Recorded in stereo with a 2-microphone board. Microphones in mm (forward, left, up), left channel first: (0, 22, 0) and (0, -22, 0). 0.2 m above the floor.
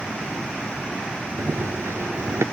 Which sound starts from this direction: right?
Running footsteps, at 1.4 s.